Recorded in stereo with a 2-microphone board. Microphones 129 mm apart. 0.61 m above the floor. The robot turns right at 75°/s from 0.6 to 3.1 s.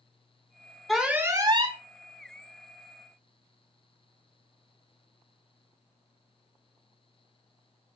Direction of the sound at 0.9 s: Straight behind.